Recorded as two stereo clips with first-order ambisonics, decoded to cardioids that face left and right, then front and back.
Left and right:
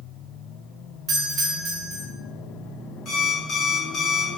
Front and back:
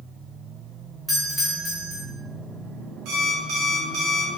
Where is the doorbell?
90° right, 0.9 m.